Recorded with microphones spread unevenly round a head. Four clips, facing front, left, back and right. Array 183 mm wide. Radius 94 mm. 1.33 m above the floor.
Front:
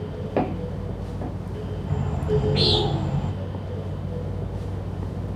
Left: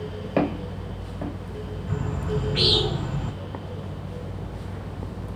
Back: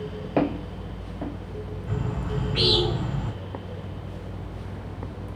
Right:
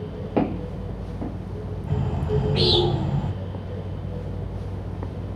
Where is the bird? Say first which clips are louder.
Right 3 dB, front 6 dB; 45° right, 1.8 m.